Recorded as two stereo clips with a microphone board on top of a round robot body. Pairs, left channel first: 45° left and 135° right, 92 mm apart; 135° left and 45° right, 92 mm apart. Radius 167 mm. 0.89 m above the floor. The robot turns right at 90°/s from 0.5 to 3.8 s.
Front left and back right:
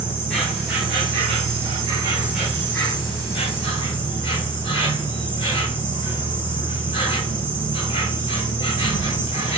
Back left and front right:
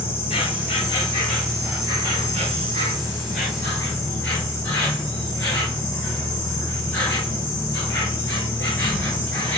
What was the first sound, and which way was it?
An insect, 130° left.